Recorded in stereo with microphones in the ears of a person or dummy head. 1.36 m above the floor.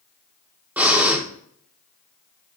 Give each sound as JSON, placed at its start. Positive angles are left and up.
{"t": 0.8, "sound": "breathing", "side_deg": -5, "distance_m": 0.8}